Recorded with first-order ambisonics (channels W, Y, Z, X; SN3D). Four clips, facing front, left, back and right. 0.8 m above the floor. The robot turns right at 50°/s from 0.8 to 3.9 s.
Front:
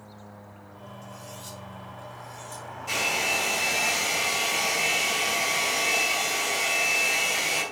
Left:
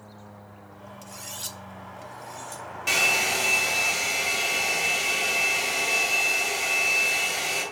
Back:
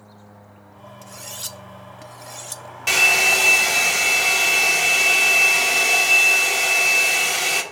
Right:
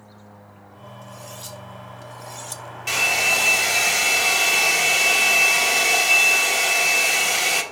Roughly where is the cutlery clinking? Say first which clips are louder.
Left 1 dB, back 9 dB; behind left.